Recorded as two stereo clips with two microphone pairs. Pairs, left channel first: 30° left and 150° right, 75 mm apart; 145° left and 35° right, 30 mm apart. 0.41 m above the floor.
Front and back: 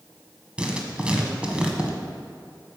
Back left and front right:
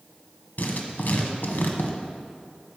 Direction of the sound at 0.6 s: 135° left.